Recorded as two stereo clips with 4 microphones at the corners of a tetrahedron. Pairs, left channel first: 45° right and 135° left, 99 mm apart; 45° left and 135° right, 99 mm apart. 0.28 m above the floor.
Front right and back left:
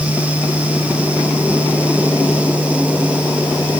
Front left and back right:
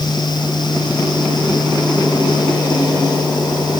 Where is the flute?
No flute in this recording.